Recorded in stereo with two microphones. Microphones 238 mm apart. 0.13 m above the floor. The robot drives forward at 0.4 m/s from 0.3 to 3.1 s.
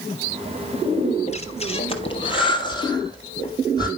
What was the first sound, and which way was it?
Breathing, 30° left (ahead or behind).